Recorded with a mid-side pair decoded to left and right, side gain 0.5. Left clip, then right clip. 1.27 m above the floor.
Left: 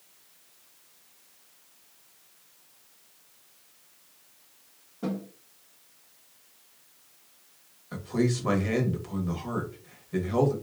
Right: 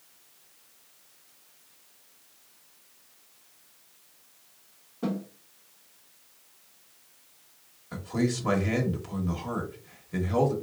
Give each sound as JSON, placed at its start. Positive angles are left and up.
{"t": 5.0, "sound": "a snare drum", "azimuth_deg": -15, "distance_m": 0.9}
{"t": 7.9, "sound": "a man speaking", "azimuth_deg": 0, "distance_m": 1.1}